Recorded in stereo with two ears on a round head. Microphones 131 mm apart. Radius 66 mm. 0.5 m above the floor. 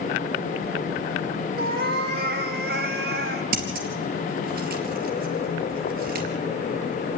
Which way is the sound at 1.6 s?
80° right.